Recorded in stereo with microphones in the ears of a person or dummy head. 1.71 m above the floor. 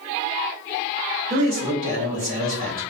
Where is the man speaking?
45° right (ahead or behind), 1.3 m.